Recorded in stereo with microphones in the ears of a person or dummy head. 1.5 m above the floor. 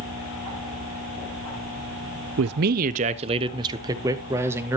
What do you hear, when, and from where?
2.4 s a man speaking: 60° right (ahead or behind), 0.6 m; by 4.8 s 10° right (ahead or behind), 1.8 m